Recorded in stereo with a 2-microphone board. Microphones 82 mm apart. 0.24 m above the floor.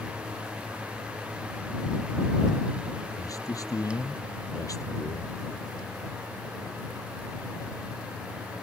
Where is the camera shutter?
I don't hear a camera shutter.